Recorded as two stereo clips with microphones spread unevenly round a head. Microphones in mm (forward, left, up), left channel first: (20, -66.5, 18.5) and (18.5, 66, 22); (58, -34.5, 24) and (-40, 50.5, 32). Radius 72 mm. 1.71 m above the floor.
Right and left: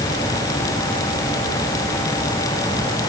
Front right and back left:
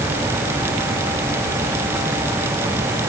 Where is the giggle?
I don't hear a giggle.